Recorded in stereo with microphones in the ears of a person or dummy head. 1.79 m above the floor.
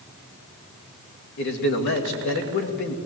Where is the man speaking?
60° left (ahead or behind), 2.5 m.